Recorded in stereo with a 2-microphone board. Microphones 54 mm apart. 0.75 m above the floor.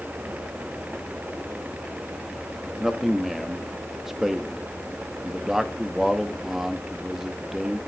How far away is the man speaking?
About 0.9 m.